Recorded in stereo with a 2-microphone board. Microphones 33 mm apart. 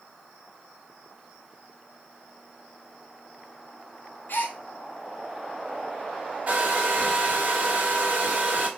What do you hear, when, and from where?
4.3 s a gasp: 70° left (ahead or behind), 0.8 m
6.5 s a hair dryer: 40° right (ahead or behind), 1.2 m